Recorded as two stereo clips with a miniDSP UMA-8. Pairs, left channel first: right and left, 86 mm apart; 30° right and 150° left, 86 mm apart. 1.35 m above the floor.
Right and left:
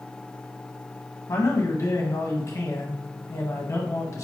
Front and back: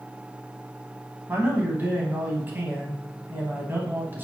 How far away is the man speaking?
About 1.2 m.